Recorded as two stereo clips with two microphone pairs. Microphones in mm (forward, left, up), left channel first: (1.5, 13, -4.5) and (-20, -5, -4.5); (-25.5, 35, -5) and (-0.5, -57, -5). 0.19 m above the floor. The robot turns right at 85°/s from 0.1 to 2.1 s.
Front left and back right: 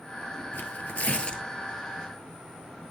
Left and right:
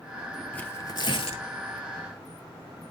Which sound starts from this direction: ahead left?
Tearing paper, at 0.5 s.